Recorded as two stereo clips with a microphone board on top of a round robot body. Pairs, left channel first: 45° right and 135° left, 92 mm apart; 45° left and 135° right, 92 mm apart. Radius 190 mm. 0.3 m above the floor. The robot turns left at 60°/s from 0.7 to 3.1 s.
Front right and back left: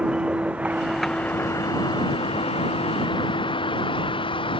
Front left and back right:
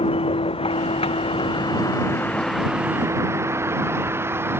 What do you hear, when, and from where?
0.0 s a vehicle: 55° left; by 4.6 s 70° right